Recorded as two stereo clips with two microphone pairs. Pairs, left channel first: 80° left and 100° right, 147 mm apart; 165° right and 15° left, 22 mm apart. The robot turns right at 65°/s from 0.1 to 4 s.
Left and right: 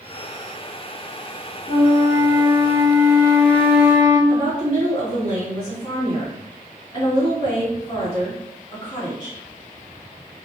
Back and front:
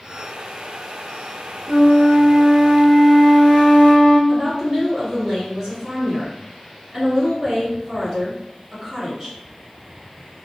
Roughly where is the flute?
Ahead left.